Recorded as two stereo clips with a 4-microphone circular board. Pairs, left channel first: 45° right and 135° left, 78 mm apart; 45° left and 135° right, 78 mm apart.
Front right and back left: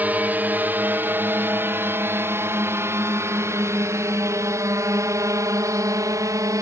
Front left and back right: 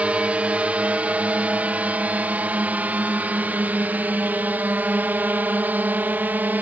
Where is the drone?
170° left; by 6.6 s 160° left.